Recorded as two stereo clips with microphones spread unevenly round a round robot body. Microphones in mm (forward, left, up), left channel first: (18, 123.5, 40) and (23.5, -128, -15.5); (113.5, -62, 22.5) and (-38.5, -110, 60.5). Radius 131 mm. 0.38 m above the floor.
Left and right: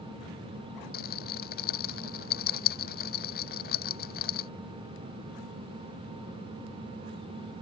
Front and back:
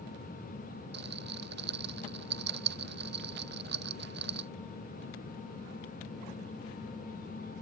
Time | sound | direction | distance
0.9 | a rattle | 150° left | ?